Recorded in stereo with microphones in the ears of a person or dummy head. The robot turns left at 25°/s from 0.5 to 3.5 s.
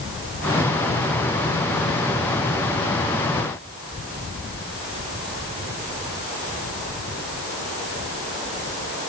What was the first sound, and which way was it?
Only background noise.